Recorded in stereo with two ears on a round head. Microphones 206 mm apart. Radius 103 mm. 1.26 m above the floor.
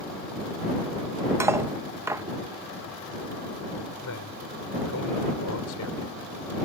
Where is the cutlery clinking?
10° right (ahead or behind).